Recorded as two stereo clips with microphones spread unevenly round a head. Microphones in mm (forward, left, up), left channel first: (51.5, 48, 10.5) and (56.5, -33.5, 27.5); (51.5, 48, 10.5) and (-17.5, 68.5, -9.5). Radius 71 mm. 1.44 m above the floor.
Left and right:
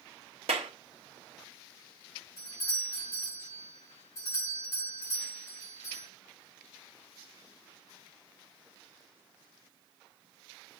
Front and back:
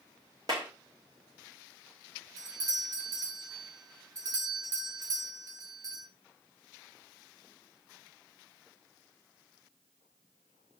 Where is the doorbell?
140° left, 2.5 m.